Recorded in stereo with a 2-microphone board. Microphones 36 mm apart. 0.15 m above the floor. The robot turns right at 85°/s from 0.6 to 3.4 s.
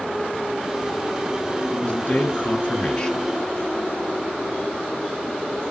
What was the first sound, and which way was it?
A man speaking, 50° left.